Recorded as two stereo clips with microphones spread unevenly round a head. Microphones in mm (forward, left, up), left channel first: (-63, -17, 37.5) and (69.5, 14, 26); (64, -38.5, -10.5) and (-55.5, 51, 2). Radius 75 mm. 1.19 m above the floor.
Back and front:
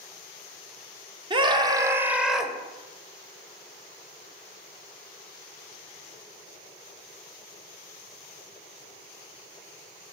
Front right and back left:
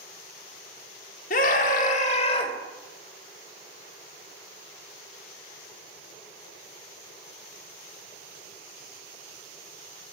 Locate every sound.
1.3 s a scream: 30° right, 1.2 m; by 2.5 s 80° right, 0.9 m